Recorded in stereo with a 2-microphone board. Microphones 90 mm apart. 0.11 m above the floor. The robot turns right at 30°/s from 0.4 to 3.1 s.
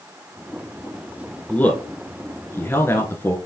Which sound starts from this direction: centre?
A man speaking, at 1.5 s.